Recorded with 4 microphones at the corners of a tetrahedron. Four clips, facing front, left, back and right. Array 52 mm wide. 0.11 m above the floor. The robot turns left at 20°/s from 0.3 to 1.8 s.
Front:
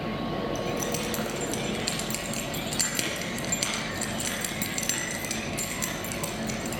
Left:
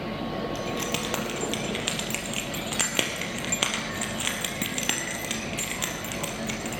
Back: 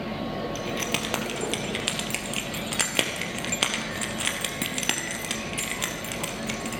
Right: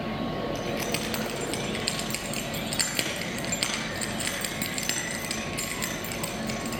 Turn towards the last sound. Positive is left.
turn(degrees=150)